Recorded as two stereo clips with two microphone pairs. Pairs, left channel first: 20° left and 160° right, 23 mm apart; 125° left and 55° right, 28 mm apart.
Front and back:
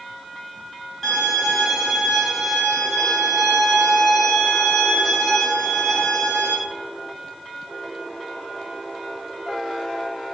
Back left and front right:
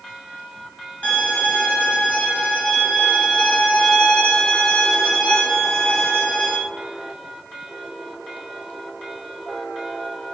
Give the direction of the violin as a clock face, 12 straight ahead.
8 o'clock.